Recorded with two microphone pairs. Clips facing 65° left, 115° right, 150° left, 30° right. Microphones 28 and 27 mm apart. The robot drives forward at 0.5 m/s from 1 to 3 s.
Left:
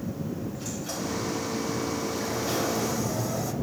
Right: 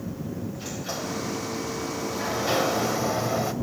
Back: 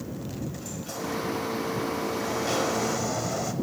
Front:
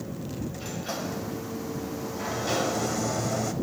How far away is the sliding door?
About 1.4 m.